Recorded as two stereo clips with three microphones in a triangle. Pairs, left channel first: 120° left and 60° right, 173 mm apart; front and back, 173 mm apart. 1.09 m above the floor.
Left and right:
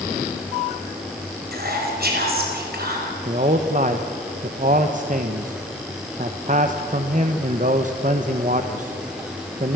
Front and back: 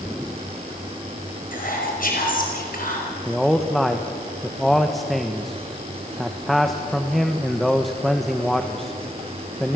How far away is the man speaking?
About 1.1 m.